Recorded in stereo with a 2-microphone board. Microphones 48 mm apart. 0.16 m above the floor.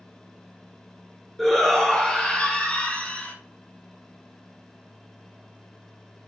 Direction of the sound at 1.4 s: 5° left (ahead or behind).